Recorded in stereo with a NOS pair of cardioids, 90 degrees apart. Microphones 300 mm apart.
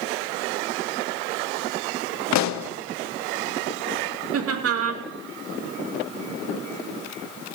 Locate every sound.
2.3 s a pop: 65° left, 0.9 m
4.3 s laughter: 50° right, 3 m